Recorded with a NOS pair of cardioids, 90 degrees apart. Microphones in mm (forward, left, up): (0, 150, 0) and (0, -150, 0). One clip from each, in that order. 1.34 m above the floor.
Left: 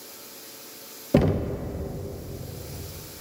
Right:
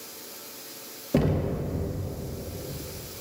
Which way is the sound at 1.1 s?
25° left.